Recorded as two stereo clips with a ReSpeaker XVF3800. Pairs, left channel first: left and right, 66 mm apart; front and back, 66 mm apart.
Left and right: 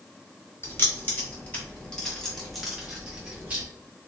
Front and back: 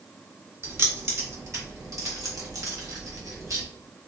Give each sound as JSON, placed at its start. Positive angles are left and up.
{"t": 0.6, "sound": "keys jangling", "azimuth_deg": 140, "distance_m": 2.0}